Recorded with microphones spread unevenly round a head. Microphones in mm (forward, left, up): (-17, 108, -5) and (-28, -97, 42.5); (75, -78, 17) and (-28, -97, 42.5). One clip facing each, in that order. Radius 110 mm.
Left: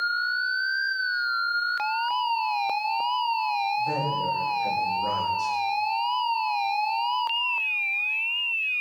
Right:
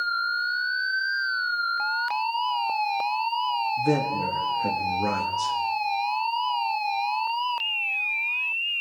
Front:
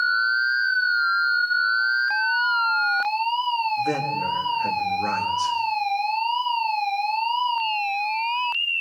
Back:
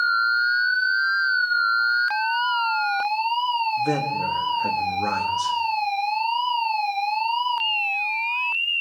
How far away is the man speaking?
About 2 m.